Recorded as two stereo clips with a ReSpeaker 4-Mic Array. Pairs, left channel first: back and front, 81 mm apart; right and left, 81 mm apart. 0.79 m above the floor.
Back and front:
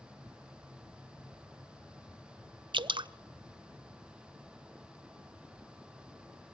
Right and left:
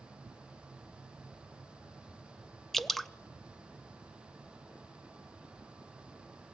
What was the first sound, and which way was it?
Dripping, 5° right.